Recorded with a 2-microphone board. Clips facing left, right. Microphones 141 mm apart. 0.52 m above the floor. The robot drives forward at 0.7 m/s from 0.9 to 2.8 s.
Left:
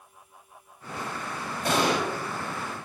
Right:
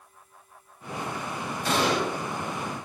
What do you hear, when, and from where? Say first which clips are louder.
1.6 s an explosion: left 1 dB; 60° left (ahead or behind), 3 m; by 2.0 s 65° left (ahead or behind), 3 m